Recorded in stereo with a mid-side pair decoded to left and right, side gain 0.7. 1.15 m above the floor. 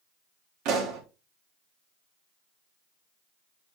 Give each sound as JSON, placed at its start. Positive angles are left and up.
{"t": 0.7, "sound": "a pop", "azimuth_deg": -60, "distance_m": 3.0}